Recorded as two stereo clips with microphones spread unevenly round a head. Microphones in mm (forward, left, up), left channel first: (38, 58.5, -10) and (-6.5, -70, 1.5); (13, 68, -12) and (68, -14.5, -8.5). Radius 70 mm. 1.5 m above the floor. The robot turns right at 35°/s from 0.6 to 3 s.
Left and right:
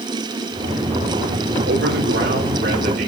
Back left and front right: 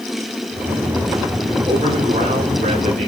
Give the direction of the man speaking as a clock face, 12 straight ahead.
4 o'clock.